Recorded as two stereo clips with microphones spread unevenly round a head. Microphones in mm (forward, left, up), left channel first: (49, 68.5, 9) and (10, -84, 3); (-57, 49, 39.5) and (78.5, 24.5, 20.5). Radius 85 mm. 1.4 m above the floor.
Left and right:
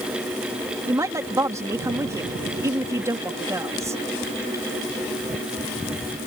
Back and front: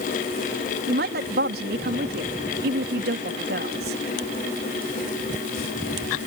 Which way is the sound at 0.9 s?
30° right.